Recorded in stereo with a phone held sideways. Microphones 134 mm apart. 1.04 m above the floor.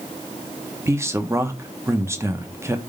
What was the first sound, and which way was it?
A man speaking, 20° right (ahead or behind).